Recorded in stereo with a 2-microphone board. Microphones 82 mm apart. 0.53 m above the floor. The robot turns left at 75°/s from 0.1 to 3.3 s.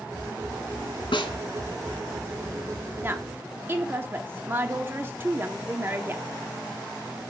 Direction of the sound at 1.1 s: 85° left.